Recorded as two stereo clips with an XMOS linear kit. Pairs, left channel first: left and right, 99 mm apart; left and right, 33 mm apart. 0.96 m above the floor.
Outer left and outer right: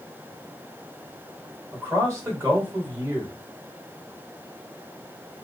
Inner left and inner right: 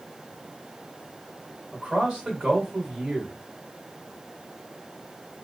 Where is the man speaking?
30° right (ahead or behind), 2.0 m.